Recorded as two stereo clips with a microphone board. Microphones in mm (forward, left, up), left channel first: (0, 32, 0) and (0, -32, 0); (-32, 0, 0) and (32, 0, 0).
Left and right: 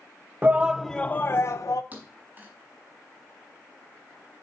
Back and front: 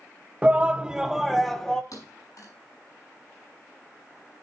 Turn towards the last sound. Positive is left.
turn(degrees=-155)